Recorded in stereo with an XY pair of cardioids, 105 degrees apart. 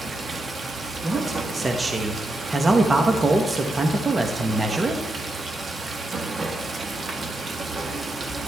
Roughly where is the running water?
Ahead right.